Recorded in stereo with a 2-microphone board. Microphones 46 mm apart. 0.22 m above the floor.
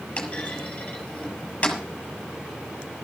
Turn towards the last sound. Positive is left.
turn(degrees=25)  # may be behind; listen again after turning